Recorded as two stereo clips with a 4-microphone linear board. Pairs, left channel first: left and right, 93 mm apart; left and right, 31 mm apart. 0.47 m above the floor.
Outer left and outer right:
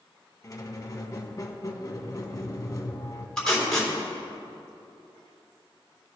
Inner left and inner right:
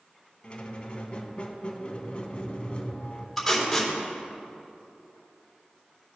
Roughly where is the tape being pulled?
Centre.